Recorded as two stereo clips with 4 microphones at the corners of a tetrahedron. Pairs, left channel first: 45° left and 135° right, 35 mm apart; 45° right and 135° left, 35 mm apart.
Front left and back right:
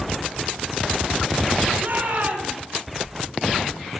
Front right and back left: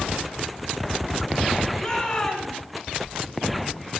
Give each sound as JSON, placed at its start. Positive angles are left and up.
{"t": 1.8, "sound": "a shout", "azimuth_deg": -110, "distance_m": 4.5}